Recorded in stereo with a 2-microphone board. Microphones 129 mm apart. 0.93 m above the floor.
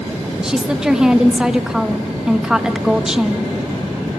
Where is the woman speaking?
5° right (ahead or behind), 1.3 m.